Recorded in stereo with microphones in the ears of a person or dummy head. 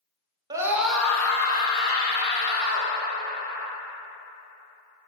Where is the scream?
20° right (ahead or behind), 0.8 m; by 2.9 s 45° left (ahead or behind), 2.5 m.